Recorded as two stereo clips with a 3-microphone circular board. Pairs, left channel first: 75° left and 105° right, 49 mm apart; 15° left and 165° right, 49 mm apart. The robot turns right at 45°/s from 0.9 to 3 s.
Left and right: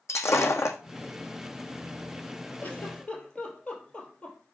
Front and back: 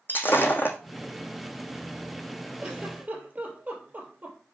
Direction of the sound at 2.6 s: 125° left.